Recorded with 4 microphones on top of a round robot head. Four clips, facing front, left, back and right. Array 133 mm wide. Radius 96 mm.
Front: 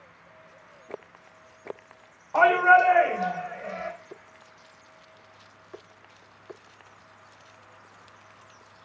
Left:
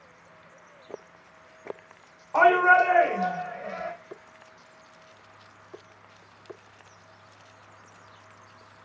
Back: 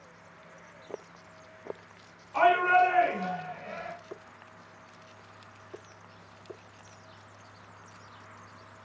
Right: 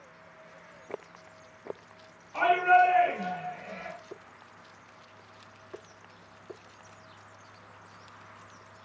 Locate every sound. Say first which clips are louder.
2.3 s a shout: left 4 dB, front 4 dB; 50° left, 3 m; by 3.9 s 45° left, 4.5 m